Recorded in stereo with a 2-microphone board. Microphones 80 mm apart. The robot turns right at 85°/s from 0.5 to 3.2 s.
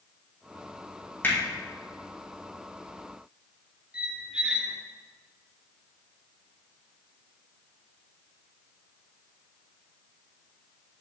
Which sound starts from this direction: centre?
A squeak, at 3.9 s.